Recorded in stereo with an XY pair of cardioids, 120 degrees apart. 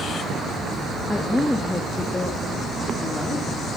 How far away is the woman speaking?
About 2 m.